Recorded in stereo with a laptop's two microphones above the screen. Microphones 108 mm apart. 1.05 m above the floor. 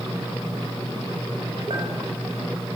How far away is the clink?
About 4.5 m.